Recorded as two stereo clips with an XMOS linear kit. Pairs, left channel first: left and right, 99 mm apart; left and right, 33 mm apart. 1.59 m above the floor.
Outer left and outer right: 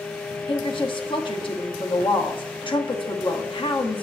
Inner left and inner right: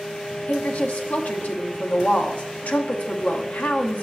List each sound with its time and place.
0.5 s a woman speaking: 60° left (ahead or behind), 0.9 m